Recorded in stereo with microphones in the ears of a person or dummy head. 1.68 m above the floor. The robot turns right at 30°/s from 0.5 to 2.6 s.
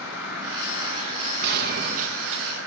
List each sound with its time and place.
0.0 s an insect: 165° right, 6 m; by 2.7 s 100° right, 6 m
1.4 s a gunshot: 60° right, 1.6 m; by 2.4 s 30° right, 1.6 m